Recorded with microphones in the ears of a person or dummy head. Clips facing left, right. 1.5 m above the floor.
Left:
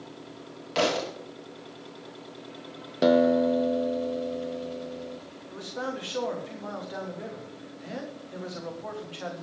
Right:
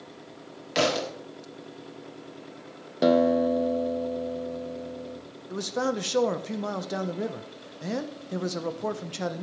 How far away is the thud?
About 1.6 m.